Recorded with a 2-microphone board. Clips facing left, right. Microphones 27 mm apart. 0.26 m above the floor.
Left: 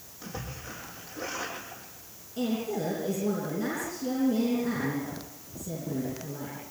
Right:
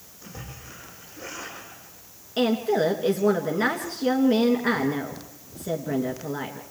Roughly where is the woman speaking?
Right.